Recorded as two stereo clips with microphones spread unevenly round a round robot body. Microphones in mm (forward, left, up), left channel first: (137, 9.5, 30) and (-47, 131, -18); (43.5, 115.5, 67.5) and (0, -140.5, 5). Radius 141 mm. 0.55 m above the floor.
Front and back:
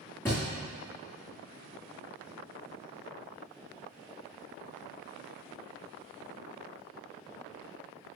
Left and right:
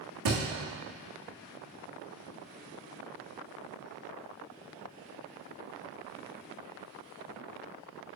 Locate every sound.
0.2 s a thud: 115° right, 2 m